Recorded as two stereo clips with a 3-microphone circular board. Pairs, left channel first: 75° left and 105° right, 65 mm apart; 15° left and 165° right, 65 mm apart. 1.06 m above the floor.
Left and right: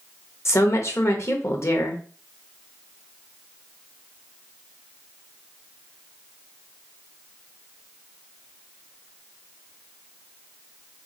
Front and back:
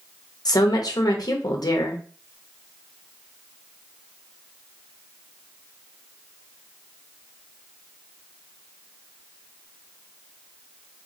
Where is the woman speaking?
30° left, 1.0 m.